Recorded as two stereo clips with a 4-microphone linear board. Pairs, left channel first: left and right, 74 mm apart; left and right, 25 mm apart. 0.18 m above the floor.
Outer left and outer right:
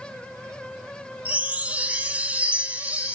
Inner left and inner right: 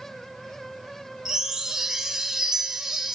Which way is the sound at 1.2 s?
20° right (ahead or behind).